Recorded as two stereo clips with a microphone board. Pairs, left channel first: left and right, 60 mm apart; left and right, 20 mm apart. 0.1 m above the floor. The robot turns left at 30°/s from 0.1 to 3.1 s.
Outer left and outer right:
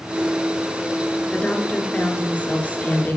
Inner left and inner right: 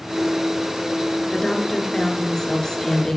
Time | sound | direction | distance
1.3 | a woman speaking | 15° left (ahead or behind) | 1.5 m